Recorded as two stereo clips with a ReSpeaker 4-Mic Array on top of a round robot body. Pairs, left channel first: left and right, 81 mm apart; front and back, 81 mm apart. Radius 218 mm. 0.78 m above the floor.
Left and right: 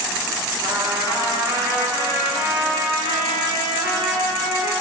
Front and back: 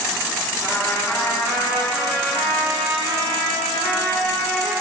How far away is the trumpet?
About 2.5 m.